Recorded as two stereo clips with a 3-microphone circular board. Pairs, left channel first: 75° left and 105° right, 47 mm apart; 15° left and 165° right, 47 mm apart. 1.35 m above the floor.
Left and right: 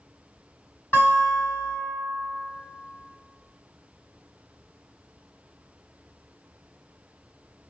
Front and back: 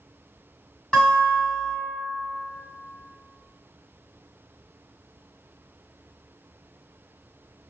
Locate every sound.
0.9 s a guitar: 90° left, 2.0 m